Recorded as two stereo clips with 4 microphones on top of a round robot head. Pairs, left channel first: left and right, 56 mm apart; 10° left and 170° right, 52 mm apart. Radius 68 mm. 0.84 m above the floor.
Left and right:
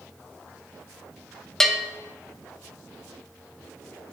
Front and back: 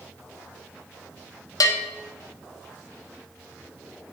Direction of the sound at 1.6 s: 10° left.